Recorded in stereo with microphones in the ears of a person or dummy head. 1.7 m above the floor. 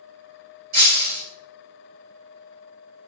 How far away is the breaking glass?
About 2.5 m.